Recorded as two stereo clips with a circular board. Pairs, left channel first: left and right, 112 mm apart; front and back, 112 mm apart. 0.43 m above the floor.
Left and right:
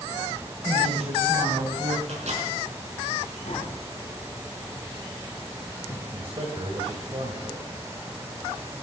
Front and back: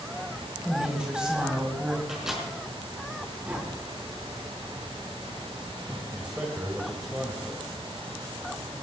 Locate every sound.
0.7 s a woman speaking: 100° right, 2.5 m
2.1 s a microwave: 95° right, 5 m
3.5 s tapping: 105° left, 3.5 m
6.1 s a man speaking: 105° right, 2.5 m